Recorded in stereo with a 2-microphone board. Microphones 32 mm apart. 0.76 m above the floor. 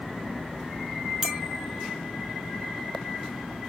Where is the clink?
40° right (ahead or behind), 0.8 m.